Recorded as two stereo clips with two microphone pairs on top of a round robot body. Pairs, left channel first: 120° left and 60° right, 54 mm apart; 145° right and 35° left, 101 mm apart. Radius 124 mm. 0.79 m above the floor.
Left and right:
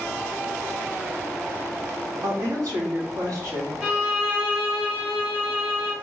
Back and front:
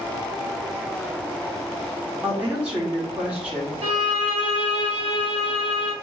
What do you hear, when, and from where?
2.2 s a woman speaking: 45° right, 1.4 m
3.8 s a violin: 5° right, 1.7 m